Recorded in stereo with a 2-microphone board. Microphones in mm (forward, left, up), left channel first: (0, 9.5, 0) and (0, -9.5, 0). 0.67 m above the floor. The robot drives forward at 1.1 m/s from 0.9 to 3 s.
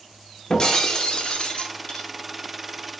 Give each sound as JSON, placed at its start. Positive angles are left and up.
{"t": 0.5, "sound": "breaking glass", "side_deg": 45, "distance_m": 0.7}